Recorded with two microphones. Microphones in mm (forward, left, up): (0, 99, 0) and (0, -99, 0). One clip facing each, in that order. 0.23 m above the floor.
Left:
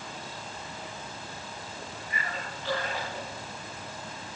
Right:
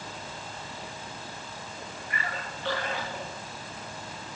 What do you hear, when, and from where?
2.1 s a splash: 60° right (ahead or behind), 8 m